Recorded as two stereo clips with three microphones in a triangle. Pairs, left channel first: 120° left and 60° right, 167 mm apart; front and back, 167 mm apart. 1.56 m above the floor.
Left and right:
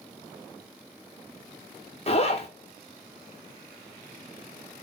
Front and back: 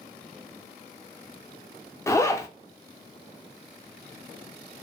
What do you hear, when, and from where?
2.1 s a zipper: 75° left, 0.6 m